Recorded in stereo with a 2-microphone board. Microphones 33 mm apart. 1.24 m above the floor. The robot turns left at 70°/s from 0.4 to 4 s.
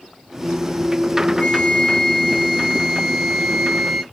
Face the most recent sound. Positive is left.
turn(degrees=-75)